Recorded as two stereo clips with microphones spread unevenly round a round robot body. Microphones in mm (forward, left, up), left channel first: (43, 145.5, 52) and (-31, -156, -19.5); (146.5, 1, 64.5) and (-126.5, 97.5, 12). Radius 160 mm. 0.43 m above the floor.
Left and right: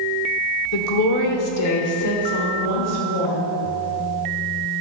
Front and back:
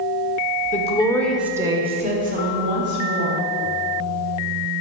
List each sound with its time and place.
0.7 s a woman speaking: 45° left, 1.6 m; by 3.4 s 125° left, 3.5 m